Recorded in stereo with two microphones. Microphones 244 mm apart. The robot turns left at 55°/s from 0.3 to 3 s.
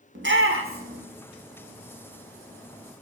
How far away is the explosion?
No explosion in this recording.